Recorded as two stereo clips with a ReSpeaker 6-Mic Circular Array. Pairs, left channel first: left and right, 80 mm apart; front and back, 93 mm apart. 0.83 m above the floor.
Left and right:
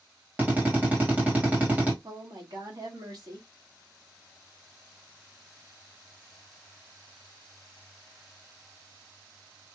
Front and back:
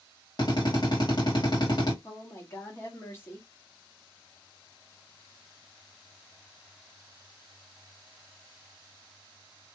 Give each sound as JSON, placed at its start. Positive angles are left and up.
{"t": 0.4, "sound": "a drill", "azimuth_deg": -25, "distance_m": 1.7}
{"t": 2.0, "sound": "a woman speaking", "azimuth_deg": -60, "distance_m": 1.5}